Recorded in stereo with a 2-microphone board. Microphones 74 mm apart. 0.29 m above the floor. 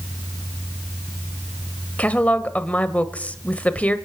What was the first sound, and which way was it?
A woman speaking, 20° left (ahead or behind).